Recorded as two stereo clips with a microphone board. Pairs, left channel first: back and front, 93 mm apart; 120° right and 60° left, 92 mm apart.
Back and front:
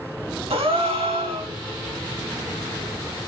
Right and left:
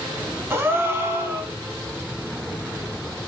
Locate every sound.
0.5 s a gasp: 5° right, 0.5 m